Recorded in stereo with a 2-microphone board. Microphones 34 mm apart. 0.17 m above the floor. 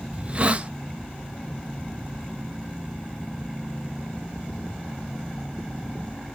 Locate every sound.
0.1 s a hiss: 35° right (ahead or behind), 0.5 m